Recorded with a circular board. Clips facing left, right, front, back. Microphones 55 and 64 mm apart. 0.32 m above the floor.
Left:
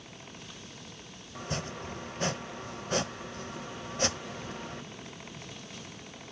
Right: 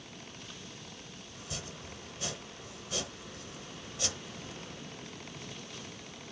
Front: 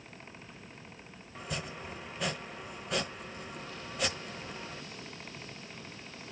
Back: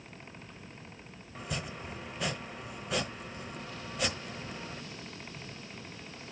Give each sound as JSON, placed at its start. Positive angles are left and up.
{"t": 1.4, "sound": "chopping", "azimuth_deg": 95, "distance_m": 0.8}